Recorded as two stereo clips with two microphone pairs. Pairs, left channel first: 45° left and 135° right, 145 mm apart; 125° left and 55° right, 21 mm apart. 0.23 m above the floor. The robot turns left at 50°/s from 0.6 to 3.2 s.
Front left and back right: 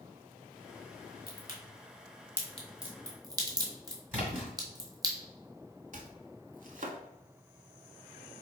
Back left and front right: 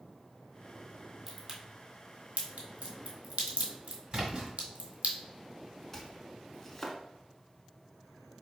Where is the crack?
30° left, 1.3 m; by 5.1 s 70° right, 1.3 m.